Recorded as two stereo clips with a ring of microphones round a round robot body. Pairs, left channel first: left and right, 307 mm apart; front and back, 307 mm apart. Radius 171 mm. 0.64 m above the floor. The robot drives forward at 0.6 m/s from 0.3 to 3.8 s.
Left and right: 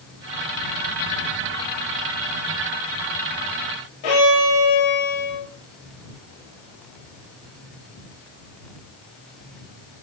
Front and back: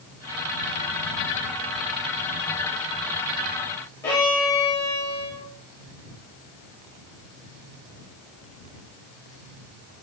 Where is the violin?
80° left, 9.5 m.